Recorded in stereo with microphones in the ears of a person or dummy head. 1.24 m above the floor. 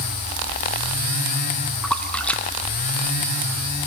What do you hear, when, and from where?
1.8 s a splash: 10° left (ahead or behind), 1.1 m